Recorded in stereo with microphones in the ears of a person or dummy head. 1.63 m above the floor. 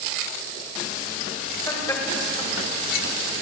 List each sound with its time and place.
1.7 s laughter: 20° left (ahead or behind), 2.5 m; by 3.4 s 25° left (ahead or behind), 1.6 m